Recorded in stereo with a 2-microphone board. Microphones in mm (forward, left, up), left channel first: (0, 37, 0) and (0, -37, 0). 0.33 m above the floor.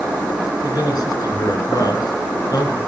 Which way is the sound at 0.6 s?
60° left (ahead or behind).